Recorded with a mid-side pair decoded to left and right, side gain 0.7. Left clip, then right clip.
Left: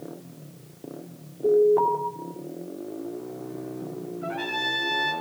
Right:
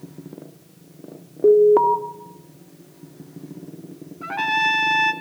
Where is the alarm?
65° right, 2.5 m.